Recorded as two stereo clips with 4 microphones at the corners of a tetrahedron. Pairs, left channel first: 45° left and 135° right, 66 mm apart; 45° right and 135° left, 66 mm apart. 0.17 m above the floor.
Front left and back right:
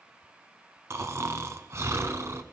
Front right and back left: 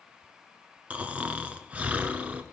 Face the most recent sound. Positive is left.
turn(degrees=-160)